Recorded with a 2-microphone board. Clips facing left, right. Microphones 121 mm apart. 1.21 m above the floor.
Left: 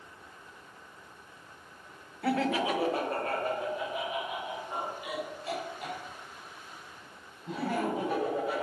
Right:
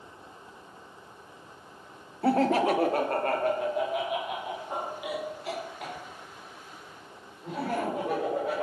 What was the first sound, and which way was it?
Laughter, 35° right (ahead or behind).